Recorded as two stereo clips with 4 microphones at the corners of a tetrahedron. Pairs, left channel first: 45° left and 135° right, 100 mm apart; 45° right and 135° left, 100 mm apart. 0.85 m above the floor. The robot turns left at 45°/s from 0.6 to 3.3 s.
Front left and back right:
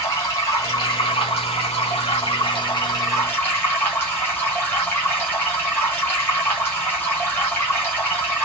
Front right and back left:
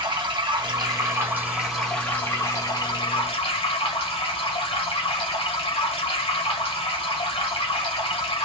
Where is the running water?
100° left, 1.6 m; by 8.4 s 25° right, 1.6 m.